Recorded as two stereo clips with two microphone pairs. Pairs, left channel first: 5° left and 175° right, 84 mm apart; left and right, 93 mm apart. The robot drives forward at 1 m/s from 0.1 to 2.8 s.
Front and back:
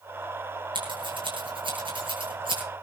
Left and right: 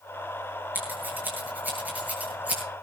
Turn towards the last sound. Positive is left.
turn(degrees=-160)